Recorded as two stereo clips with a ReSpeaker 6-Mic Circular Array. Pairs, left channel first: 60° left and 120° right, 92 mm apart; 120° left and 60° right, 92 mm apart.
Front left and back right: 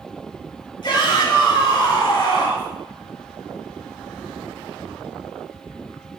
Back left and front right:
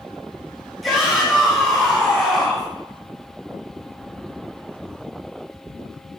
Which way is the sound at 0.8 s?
30° left.